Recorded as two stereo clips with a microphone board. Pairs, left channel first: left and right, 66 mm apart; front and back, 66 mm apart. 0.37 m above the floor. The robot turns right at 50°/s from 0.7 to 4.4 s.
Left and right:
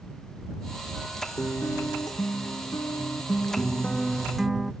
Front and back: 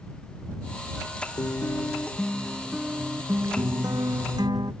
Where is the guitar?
35° left; by 4.7 s 175° right.